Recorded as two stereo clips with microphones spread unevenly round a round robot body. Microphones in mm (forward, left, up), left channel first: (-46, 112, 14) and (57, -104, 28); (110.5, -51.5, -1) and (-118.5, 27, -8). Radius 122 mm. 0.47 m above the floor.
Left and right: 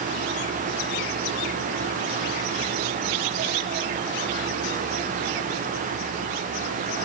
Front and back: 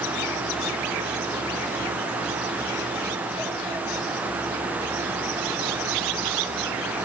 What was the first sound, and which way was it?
Only background noise.